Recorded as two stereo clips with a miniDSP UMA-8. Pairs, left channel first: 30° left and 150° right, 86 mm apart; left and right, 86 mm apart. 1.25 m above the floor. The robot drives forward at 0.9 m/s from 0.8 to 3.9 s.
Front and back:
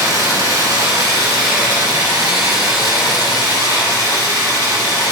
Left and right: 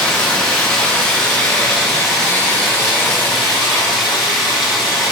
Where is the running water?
165° left, 2.5 m; by 5.1 s 175° left, 5 m.